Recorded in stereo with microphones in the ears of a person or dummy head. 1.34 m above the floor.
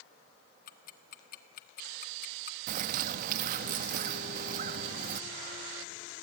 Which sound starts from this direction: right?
A bird, at 2.7 s.